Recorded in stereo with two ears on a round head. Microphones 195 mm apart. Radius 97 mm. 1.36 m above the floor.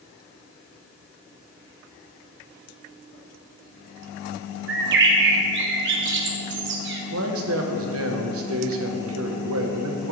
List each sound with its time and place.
4.7 s a bird: 55° right (ahead or behind), 1.2 m
7.1 s a man speaking: 70° right (ahead or behind), 1.2 m